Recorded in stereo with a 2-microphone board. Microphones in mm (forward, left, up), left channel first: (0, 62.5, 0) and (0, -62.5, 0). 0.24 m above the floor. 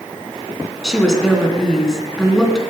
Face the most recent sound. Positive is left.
turn(degrees=5)  # may be behind; listen again after turning